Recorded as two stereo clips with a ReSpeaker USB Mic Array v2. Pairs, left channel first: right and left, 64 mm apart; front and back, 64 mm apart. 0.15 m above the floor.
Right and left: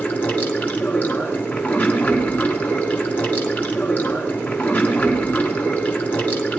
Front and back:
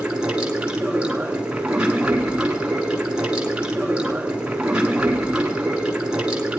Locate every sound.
0.0 s running water: 125° right, 1.3 m